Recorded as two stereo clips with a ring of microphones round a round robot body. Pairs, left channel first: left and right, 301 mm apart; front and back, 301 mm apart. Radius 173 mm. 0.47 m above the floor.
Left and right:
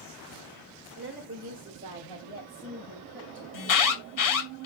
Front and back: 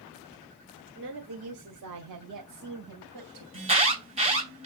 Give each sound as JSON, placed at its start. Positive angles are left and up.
{"t": 0.9, "sound": "a woman speaking", "azimuth_deg": -135, "distance_m": 1.7}
{"t": 3.5, "sound": "an alarm", "azimuth_deg": 110, "distance_m": 3.0}